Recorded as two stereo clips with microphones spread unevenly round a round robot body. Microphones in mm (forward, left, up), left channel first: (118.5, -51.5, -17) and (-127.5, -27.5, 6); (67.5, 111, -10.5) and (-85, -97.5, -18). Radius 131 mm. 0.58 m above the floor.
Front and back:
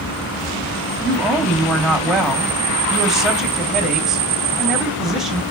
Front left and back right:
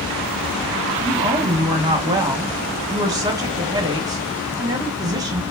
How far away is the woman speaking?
About 1.1 m.